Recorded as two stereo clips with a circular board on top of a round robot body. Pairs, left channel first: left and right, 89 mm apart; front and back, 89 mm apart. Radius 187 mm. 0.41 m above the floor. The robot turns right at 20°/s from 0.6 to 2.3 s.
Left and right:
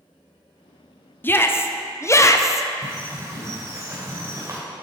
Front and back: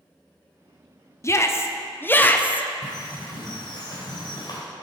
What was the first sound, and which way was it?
A shout, 35° left.